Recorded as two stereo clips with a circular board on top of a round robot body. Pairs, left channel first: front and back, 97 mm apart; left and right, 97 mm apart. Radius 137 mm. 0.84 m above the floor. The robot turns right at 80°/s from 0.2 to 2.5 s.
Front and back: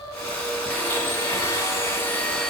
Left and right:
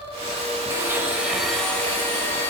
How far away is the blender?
About 1.0 m.